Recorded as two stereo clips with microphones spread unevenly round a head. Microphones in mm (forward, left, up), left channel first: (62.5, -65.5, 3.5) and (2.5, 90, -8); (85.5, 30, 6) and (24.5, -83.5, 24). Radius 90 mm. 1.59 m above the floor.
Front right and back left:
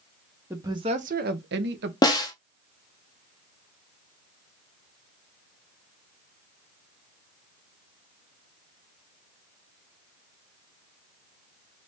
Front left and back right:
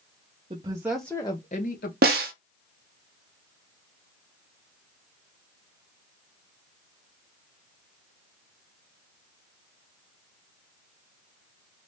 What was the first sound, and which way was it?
A woman speaking, 170° right.